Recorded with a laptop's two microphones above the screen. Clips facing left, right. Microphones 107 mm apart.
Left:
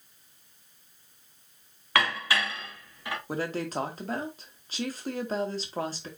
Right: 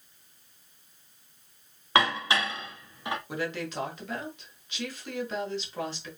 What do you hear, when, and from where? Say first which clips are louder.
1.9 s dishes clattering: right 2 dB; 25° right (ahead or behind), 1.0 m
3.3 s a woman speaking: left 2 dB; 40° left (ahead or behind), 1.3 m